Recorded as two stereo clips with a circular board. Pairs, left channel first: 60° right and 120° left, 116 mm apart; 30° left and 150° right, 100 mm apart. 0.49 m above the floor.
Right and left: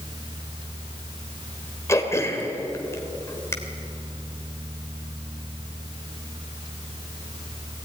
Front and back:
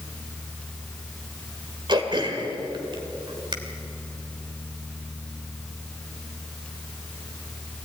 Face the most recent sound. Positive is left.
turn(degrees=-120)